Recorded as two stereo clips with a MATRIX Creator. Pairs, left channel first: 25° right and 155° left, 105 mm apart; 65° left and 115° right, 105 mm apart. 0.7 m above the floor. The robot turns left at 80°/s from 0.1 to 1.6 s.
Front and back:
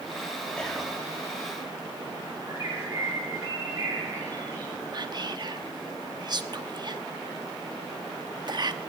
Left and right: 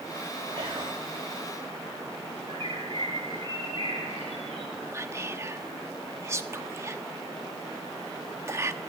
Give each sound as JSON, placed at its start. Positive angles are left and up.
{"t": 0.6, "sound": "whispering", "azimuth_deg": -100, "distance_m": 1.4}
{"t": 2.5, "sound": "a bird", "azimuth_deg": -145, "distance_m": 9.5}
{"t": 4.9, "sound": "whispering", "azimuth_deg": -170, "distance_m": 0.9}